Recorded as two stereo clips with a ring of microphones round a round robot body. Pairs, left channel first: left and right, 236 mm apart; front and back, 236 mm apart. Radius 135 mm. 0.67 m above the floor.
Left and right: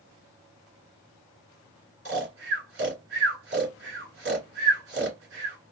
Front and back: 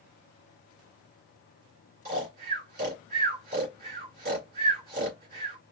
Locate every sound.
2.0 s snoring: 130° right, 2.5 m